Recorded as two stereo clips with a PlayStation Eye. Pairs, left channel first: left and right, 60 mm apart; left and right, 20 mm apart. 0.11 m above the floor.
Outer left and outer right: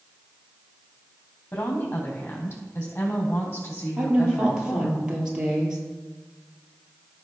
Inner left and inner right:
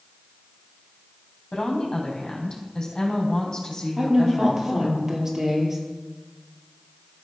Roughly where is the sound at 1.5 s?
Left.